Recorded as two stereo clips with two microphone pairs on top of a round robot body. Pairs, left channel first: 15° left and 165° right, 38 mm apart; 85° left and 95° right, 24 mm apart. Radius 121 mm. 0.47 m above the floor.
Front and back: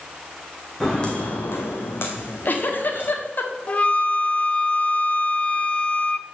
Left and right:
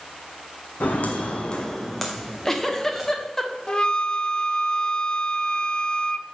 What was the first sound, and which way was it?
Footsteps, 90° left.